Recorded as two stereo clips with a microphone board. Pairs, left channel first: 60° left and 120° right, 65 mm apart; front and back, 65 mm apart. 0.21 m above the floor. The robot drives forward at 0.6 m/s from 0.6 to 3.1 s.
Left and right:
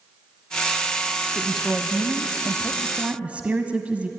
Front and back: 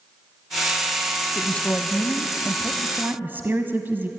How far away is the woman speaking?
About 1.0 m.